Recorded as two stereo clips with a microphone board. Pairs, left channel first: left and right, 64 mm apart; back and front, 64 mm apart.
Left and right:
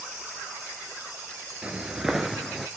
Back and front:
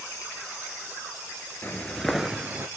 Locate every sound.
1.6 s footsteps: 155° right, 0.7 m; by 2.7 s 5° left, 0.7 m